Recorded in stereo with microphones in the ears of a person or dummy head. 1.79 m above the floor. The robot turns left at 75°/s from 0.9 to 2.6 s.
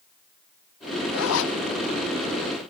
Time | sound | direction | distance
1.1 | a zipper | 80° left | 0.5 m